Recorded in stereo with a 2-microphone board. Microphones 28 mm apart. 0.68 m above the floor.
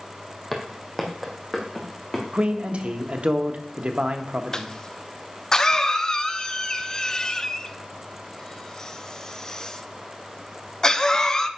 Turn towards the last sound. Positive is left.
turn(degrees=30)  # may be behind; listen again after turning